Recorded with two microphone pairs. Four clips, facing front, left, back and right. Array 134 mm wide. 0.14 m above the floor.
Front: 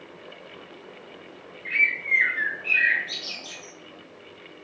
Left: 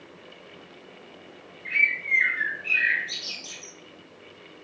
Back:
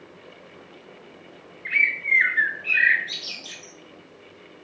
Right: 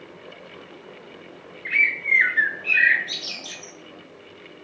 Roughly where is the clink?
No clink in this recording.